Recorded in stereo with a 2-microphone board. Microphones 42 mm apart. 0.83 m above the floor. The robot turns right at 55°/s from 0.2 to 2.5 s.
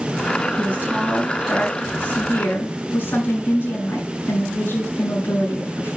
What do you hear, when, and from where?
0.6 s a woman speaking: 50° right, 7 m; by 6.0 s 55° left, 7 m